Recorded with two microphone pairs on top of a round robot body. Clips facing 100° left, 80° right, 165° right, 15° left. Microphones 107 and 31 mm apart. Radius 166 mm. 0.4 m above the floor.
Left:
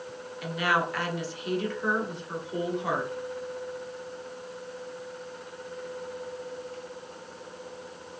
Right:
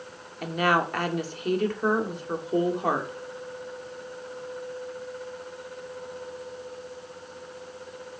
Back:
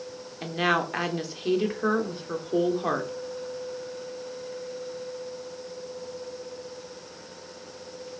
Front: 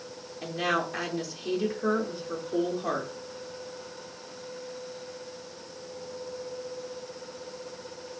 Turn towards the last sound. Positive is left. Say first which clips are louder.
# right 3 dB, back 3 dB
turn(degrees=-115)